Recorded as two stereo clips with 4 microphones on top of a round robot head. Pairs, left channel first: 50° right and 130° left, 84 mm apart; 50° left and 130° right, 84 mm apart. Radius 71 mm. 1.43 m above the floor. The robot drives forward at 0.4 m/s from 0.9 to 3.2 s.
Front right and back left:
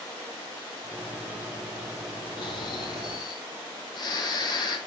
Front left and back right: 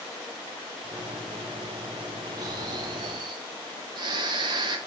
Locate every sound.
2.4 s snoring: 85° right, 2.5 m; by 4.8 s 90° right, 2.5 m